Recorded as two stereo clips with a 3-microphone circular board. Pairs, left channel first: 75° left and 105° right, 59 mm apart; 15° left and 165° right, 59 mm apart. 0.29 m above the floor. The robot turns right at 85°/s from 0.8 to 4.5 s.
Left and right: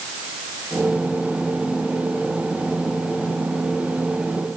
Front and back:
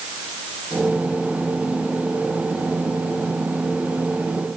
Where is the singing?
No singing in this recording.